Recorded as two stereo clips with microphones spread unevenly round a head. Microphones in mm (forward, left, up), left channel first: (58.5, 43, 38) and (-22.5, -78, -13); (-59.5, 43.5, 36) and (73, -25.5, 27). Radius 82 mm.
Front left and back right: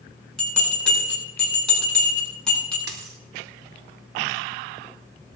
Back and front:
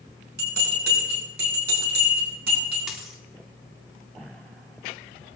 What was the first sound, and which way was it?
A bell, 30° right.